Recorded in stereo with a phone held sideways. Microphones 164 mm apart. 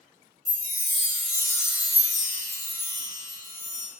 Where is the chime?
15° left (ahead or behind), 1.2 m.